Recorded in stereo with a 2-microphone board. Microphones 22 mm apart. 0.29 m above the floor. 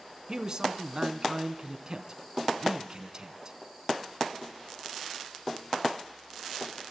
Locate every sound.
0.3 s a man speaking: 30° right (ahead or behind), 2.5 m